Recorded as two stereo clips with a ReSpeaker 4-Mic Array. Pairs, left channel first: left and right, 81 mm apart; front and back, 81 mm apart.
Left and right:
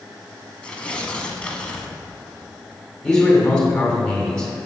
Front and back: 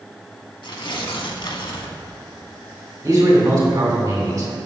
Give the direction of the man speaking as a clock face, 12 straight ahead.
7 o'clock.